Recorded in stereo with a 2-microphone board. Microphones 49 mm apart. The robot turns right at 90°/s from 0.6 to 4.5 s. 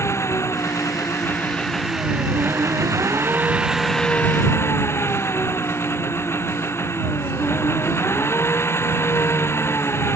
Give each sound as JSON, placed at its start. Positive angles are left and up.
{"t": 0.0, "sound": "an engine running", "azimuth_deg": 65}